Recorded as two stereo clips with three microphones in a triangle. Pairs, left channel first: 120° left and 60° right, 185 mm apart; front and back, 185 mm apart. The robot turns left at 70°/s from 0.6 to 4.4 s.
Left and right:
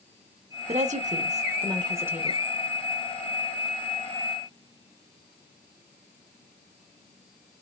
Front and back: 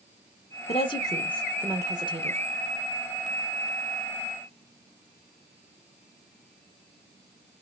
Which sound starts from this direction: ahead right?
A woman speaking, at 0.7 s.